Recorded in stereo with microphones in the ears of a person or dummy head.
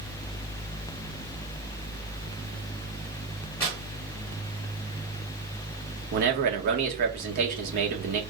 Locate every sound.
3.6 s tearing paper: 5° left (ahead or behind), 1.4 m
6.1 s a man speaking: 50° right (ahead or behind), 1.2 m